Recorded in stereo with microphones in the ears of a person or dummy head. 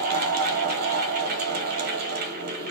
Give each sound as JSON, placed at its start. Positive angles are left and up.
{"t": 0.0, "sound": "a fan", "side_deg": -50, "distance_m": 0.9}